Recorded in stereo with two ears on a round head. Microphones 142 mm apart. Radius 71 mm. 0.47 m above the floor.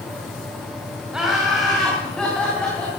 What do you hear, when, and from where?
1.1 s laughter: 5° right (ahead or behind), 3 m; by 2.9 s 10° left (ahead or behind), 4 m